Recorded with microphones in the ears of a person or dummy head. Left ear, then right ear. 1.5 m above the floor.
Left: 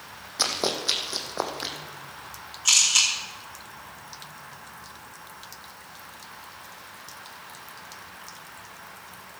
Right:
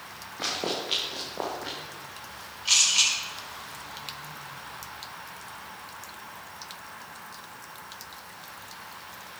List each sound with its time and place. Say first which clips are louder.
0.4 s running footsteps: left 4 dB; 55° left (ahead or behind), 2.5 m; by 1.8 s 60° left (ahead or behind), 3 m
2.6 s a camera shutter: left 2 dB; 40° left (ahead or behind), 6 m